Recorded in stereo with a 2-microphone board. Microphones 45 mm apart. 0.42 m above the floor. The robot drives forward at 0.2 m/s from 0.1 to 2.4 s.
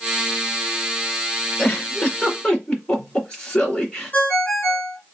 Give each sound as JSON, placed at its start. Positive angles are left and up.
{"t": 1.6, "sound": "a giggle", "side_deg": 30, "distance_m": 1.8}
{"t": 4.1, "sound": "a ringtone", "side_deg": 45, "distance_m": 2.5}